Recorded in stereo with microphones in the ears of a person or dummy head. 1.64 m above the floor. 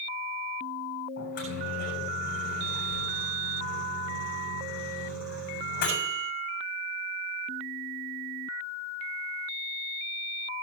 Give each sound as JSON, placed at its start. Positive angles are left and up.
{"t": 1.2, "sound": "a microwave", "side_deg": 60, "distance_m": 6.0}